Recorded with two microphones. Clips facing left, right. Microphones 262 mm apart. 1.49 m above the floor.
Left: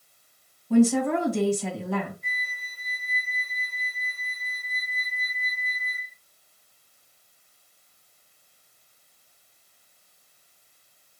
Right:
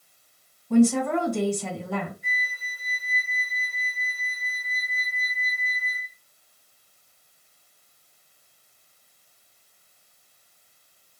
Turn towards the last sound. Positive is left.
turn(degrees=-10)  # may be behind; listen again after turning